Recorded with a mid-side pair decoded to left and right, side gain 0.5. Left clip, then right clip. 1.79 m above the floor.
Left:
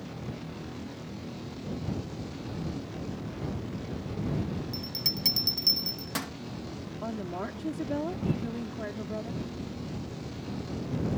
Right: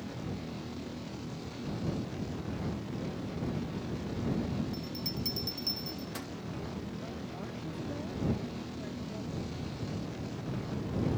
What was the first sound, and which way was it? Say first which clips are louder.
A bell: left 7 dB; 55° left.